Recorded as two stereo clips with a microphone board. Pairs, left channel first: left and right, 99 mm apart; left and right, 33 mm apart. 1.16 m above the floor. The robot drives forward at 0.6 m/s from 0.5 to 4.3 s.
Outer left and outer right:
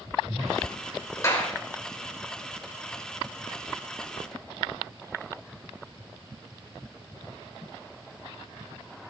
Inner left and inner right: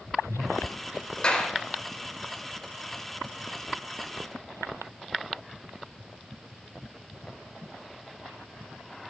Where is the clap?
30° left (ahead or behind), 4 m.